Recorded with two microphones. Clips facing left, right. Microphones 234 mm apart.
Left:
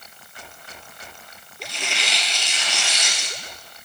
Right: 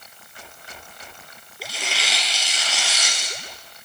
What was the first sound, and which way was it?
Tearing paper, 5° right (ahead or behind).